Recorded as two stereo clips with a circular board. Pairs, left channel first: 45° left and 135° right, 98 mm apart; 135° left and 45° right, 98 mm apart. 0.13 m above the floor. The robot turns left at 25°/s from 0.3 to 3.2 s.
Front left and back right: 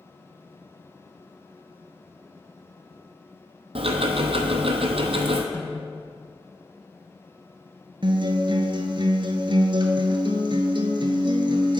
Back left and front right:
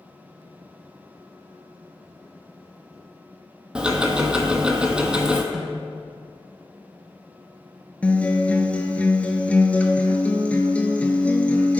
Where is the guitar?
150° right, 0.7 m.